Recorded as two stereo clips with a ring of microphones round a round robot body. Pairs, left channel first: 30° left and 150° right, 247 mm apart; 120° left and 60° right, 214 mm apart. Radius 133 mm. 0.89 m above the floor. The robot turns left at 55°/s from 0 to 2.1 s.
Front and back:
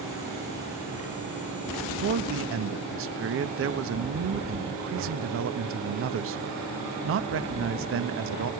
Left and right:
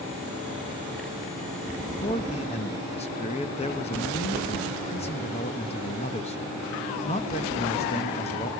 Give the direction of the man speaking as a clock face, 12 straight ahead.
6 o'clock.